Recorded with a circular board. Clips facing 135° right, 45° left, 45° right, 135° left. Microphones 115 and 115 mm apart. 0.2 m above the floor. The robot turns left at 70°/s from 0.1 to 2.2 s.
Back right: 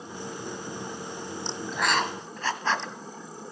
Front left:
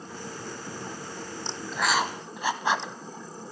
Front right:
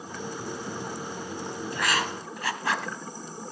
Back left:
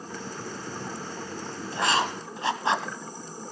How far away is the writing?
About 1.1 m.